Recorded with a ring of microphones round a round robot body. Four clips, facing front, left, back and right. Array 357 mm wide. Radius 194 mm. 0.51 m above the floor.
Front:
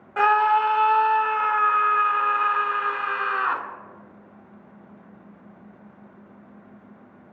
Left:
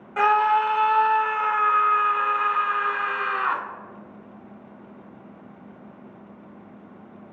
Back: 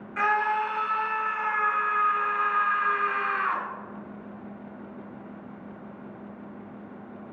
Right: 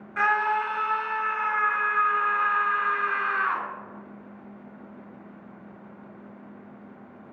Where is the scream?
25° left, 1.5 m.